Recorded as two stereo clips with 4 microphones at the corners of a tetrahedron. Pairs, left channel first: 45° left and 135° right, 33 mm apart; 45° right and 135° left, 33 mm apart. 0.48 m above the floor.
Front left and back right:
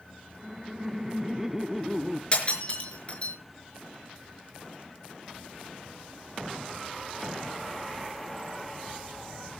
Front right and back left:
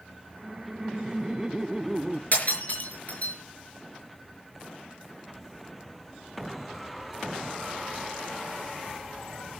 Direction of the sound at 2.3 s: 10° right.